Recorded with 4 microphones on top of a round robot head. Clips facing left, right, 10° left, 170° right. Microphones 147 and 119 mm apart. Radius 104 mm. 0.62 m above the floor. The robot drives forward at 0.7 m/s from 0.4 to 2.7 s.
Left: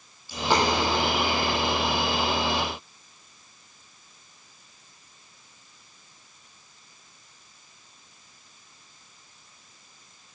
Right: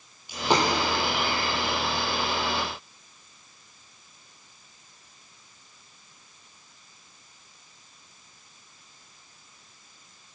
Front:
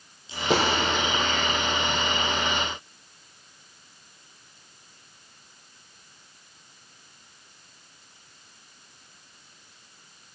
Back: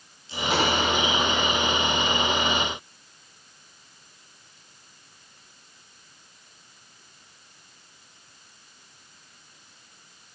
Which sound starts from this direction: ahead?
A dropped coin, at 0.3 s.